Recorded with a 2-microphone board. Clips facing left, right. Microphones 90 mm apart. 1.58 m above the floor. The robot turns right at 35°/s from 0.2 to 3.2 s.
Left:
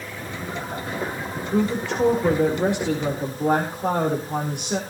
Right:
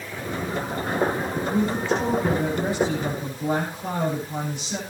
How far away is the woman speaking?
About 5 m.